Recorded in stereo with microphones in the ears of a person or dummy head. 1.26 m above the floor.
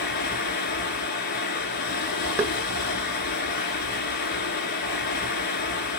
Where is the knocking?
10° right (ahead or behind), 1.2 m.